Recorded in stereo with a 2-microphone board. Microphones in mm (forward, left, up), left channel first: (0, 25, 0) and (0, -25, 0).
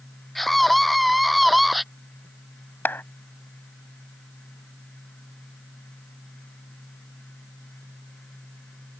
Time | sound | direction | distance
0.3 | a scream | 5° left (ahead or behind) | ?
2.9 | a clap | 45° left (ahead or behind) | ?